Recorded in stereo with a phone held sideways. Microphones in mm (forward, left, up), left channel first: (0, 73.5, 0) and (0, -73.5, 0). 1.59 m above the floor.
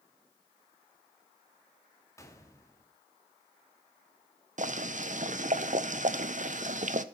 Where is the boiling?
55° right (ahead or behind), 0.9 m.